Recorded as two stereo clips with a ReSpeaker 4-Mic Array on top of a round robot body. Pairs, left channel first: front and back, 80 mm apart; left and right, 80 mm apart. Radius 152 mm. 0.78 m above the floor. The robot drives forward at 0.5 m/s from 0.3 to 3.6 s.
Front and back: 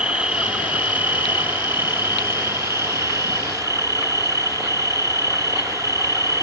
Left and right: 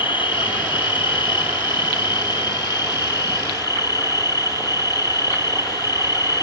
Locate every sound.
0.0 s an insect: 100° left; by 6.4 s 130° left